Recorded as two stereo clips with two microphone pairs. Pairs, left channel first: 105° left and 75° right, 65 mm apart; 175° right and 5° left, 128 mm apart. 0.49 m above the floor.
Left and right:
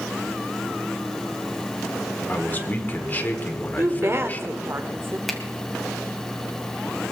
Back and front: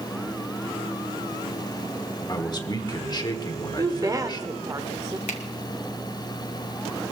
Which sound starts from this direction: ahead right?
A woman speaking, at 3.8 s.